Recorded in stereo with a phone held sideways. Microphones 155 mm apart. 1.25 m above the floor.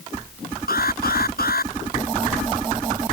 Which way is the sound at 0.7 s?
80° left.